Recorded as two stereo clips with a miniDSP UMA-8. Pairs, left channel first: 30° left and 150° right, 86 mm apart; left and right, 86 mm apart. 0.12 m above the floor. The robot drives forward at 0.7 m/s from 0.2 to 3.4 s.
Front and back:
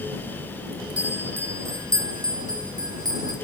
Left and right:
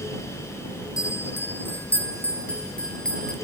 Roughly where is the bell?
Behind left.